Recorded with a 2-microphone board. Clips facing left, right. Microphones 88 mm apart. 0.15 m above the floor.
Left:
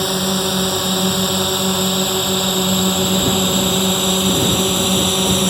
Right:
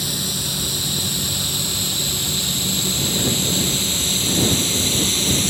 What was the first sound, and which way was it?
A drone, 60° left (ahead or behind).